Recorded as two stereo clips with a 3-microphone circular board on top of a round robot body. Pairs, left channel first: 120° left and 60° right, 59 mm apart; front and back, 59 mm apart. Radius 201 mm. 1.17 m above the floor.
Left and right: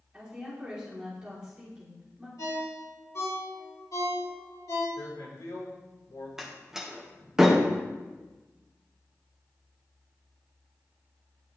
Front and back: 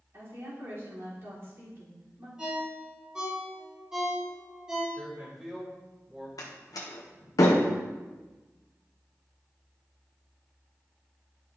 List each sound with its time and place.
0.1 s a woman speaking: 135° right, 3.5 m
2.4 s a ringtone: 110° left, 3 m
5.0 s a man speaking: 100° left, 3 m
6.4 s a door slam: 20° left, 0.5 m